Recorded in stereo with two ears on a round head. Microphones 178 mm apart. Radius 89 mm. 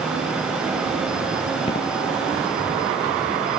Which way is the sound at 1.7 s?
30° left (ahead or behind).